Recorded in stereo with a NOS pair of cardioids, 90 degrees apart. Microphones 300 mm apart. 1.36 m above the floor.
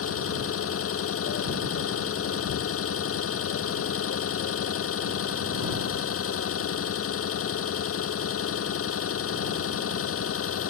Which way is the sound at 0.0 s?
50° left.